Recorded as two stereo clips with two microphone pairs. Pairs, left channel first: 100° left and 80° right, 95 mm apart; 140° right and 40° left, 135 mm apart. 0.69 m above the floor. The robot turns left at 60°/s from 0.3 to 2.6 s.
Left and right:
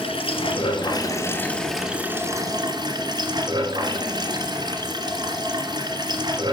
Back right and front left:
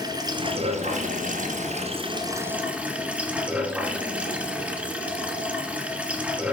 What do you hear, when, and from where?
0.0 s running water: 100° left, 1.6 m; by 6.5 s 40° right, 1.6 m